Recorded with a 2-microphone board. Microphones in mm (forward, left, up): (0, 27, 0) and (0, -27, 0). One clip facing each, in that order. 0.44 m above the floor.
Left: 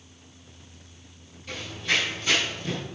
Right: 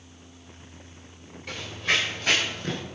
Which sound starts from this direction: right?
Running footsteps, at 1.5 s.